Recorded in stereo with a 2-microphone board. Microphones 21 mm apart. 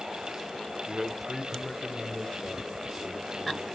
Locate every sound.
0.9 s a man speaking: 30° right (ahead or behind), 0.9 m; by 3.7 s 40° left (ahead or behind), 2.5 m